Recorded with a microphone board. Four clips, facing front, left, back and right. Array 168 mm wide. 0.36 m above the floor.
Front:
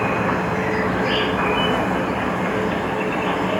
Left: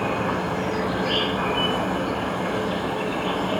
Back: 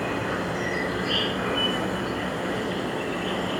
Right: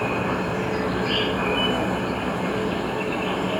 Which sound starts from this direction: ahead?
An insect, at 0.0 s.